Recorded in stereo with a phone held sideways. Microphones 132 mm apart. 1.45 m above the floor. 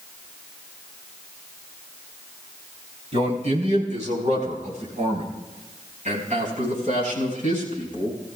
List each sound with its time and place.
3.1 s a man speaking: 60° right (ahead or behind), 3.5 m; by 8.2 s 70° right (ahead or behind), 7 m